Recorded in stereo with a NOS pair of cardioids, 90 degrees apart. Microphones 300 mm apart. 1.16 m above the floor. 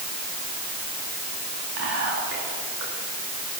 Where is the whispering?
55° right, 2 m.